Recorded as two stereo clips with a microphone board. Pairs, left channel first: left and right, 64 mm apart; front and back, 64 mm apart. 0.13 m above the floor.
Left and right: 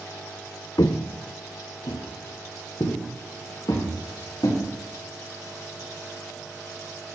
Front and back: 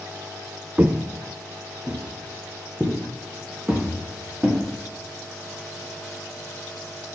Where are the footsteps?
115° left, 0.7 m; by 4.6 s 95° left, 5 m.